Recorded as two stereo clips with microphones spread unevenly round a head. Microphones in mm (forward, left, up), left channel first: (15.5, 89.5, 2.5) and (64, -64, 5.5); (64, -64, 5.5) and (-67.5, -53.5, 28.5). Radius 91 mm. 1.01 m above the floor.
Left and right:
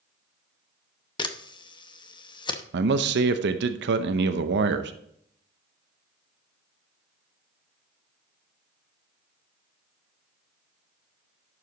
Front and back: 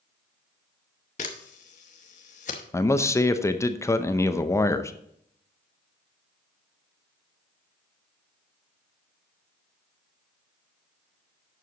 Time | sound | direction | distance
1.2 | a camera shutter | 45° left | 0.8 m
2.7 | a man speaking | 70° right | 0.6 m